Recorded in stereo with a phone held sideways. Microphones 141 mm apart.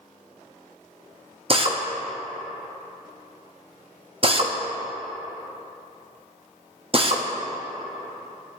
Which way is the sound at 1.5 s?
40° right (ahead or behind).